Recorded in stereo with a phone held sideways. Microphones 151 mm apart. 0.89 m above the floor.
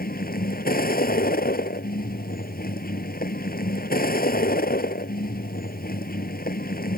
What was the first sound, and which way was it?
A vehicle, 80° left.